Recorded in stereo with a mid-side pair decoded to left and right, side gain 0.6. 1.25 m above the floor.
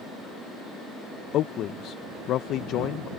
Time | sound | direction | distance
1.3 | a man speaking | 55° left | ?